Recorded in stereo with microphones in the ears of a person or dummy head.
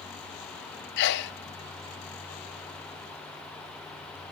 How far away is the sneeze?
About 0.8 m.